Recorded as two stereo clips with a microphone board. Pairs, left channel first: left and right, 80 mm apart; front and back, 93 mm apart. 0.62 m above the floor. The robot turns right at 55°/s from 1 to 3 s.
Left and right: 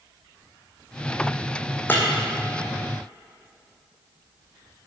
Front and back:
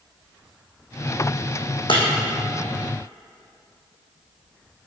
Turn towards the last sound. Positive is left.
turn(degrees=85)